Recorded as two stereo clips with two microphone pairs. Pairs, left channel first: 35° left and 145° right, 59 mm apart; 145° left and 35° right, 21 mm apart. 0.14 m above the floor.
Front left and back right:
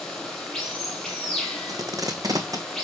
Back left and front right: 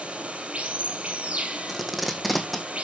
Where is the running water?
45° right, 3 m.